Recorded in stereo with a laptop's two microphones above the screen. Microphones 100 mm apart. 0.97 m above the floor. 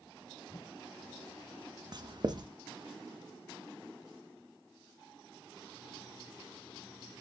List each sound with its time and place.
0.5 s a whoosh: 40° left (ahead or behind), 2 m
1.9 s writing: 45° right (ahead or behind), 1.0 m